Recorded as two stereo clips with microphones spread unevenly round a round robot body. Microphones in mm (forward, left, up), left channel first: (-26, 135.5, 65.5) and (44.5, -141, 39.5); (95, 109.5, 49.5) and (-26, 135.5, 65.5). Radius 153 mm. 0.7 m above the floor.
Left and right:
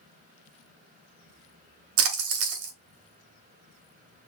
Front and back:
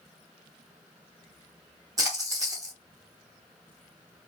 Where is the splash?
120° right, 0.9 m.